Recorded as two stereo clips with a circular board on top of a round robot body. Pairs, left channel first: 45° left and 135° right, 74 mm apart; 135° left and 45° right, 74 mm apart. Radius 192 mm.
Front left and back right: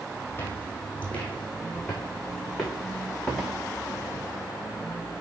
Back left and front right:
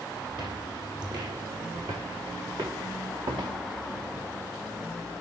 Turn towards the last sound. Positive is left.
turn(degrees=-45)